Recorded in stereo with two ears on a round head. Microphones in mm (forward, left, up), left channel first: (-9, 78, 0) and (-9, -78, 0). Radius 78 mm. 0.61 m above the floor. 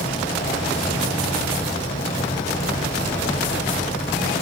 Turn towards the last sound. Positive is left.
turn(degrees=40)  # may be behind; listen again after turning